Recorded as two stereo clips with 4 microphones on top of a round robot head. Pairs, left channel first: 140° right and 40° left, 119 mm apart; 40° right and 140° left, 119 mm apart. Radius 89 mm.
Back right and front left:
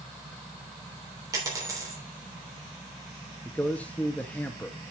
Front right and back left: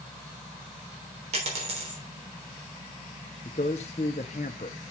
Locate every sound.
1.3 s a dropped coin: 105° left, 3.5 m
3.5 s a man speaking: 65° right, 0.8 m